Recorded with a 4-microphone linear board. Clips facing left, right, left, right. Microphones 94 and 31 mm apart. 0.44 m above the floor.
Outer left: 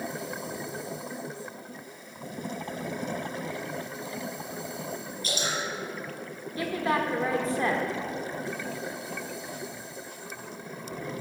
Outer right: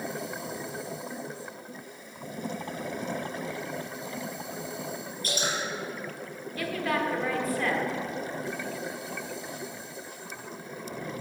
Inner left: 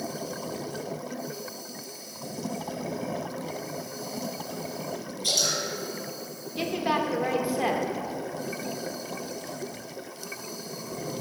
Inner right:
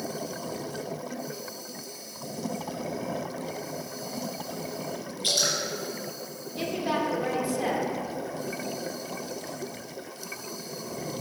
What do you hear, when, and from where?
5.2 s dripping: 45° right (ahead or behind), 3 m
6.6 s a woman speaking: 20° left (ahead or behind), 0.9 m